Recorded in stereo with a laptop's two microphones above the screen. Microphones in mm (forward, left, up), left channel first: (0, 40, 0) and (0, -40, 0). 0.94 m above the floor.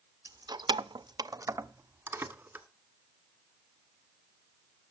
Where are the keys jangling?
40° right (ahead or behind), 0.6 m; by 2.6 s 20° right (ahead or behind), 1.7 m.